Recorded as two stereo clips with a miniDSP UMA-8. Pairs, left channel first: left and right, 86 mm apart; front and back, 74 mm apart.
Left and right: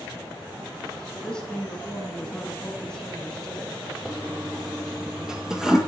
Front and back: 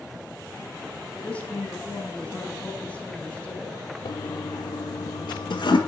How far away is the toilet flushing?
About 0.6 m.